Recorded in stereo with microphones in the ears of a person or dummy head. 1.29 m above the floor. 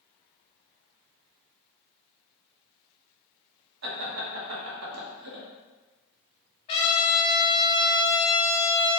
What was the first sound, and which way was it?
Laughter, 80° right.